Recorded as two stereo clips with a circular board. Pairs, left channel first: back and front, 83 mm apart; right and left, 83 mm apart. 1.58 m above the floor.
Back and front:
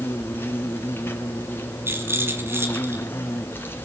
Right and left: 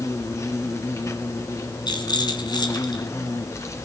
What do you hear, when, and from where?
0.0 s an insect: 125° right, 2 m
1.9 s a rattle: 60° right, 3 m